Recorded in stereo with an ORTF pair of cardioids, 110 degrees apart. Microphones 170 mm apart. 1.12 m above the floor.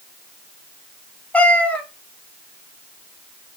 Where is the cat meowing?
10° left, 2.5 m.